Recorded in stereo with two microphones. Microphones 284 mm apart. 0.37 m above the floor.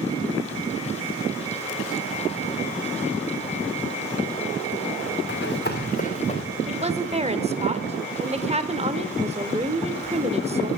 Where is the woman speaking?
20° right (ahead or behind), 0.8 m.